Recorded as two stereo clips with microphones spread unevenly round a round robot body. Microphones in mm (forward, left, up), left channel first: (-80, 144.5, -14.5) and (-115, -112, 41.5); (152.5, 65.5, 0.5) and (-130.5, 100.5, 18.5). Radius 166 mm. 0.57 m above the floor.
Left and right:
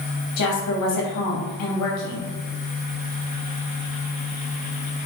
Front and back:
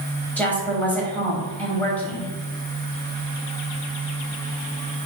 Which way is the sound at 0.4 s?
75° left.